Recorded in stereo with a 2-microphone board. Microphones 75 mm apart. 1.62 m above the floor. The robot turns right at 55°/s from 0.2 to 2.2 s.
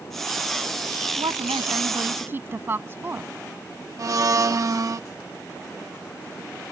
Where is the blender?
50° right (ahead or behind).